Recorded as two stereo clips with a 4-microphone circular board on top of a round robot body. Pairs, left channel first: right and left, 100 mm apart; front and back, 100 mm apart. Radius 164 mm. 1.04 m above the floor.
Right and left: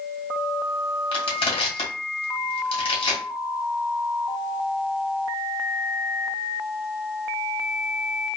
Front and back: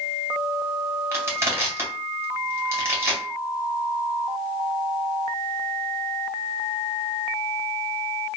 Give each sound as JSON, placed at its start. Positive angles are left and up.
{"t": 1.1, "sound": "crushing", "azimuth_deg": -115, "distance_m": 2.0}